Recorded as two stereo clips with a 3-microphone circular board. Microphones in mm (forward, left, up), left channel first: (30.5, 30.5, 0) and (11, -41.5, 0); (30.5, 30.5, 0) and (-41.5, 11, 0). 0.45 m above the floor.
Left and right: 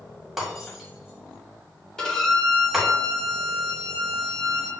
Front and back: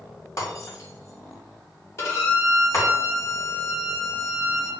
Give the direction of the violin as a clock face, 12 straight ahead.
12 o'clock.